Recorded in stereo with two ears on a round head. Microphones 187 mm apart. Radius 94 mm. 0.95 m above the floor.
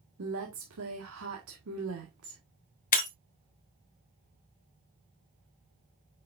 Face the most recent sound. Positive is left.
turn(degrees=40)  # may be behind; listen again after turning